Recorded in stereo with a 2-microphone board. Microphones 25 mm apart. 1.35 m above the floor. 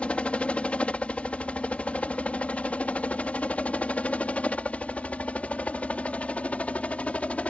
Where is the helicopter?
55° left (ahead or behind); by 7.5 s 65° left (ahead or behind).